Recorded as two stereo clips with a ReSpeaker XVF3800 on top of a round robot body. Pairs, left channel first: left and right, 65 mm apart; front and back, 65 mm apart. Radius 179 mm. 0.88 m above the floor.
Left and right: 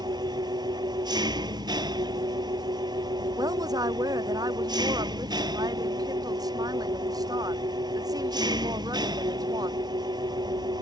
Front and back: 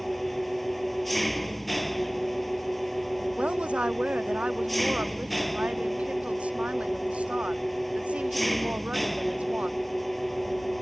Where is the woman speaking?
110° right.